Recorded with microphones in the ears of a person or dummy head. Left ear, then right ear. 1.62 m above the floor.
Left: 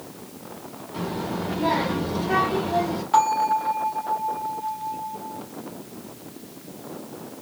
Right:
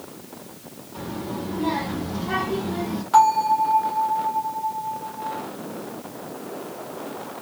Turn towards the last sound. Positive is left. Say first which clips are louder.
# right 3 dB
turn(degrees=-10)  # may be behind; listen again after turning